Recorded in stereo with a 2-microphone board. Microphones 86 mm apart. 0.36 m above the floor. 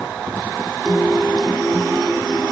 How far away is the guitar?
About 6 m.